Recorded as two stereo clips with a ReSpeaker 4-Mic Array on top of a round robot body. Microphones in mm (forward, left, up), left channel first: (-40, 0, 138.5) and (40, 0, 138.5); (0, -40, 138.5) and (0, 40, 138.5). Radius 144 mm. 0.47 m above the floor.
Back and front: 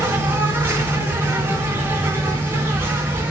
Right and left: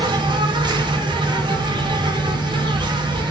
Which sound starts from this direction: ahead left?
An insect, at 0.0 s.